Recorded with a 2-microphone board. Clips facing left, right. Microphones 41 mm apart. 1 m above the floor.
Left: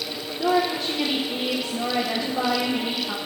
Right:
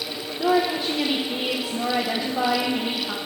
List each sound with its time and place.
0.4 s a woman speaking: 10° right (ahead or behind), 0.6 m